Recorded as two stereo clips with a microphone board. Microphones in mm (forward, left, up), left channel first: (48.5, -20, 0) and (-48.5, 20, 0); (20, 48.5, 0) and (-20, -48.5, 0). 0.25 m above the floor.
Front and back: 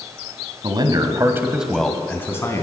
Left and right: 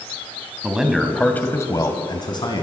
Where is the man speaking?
170° left, 1.7 m; by 2.6 s 35° left, 2 m.